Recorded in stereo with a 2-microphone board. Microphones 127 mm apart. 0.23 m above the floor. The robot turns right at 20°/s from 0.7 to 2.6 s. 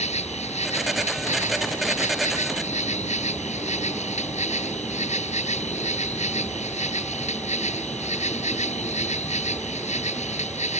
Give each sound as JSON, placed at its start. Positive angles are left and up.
{"t": 0.0, "sound": "an insect", "azimuth_deg": 70}